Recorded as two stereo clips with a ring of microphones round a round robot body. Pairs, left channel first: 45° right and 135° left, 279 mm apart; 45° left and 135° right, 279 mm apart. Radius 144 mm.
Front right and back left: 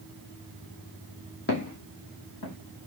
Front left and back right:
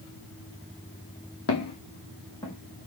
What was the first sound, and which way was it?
Footsteps, 5° left.